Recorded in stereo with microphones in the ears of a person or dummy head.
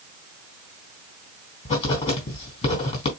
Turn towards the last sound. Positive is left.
turn(degrees=35)  # may be behind; listen again after turning